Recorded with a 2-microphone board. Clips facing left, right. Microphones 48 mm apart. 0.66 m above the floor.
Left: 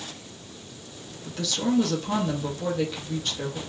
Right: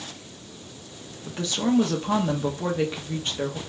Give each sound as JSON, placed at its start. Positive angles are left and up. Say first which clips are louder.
{"t": 1.3, "sound": "a woman speaking", "louder": "right 2 dB", "side_deg": -25, "distance_m": 0.9}